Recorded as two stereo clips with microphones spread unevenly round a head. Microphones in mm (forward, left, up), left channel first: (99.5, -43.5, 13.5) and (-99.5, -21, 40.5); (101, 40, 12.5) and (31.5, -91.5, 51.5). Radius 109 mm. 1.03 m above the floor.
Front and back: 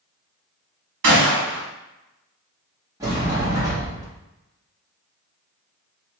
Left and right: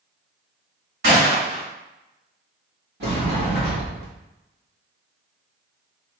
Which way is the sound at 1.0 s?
160° right.